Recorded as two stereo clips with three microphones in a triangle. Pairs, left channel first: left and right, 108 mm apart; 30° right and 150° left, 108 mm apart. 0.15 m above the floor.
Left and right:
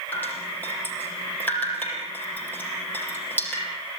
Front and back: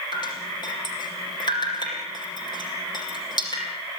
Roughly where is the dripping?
Ahead.